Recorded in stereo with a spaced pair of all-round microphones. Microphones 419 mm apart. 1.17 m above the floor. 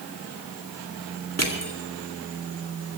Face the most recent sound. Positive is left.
turn(degrees=-35)  # may be behind; listen again after turning